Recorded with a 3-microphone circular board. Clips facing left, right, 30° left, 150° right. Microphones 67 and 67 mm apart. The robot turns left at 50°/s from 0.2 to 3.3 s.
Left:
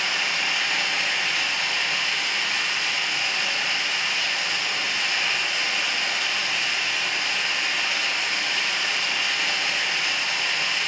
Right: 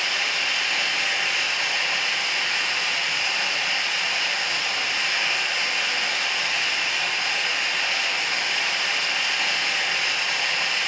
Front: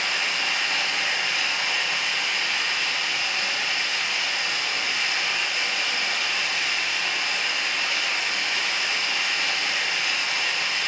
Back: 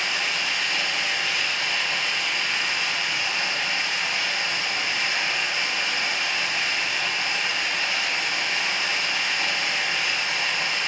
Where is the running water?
35° left, 1.4 m; by 10.9 s 120° right, 1.4 m.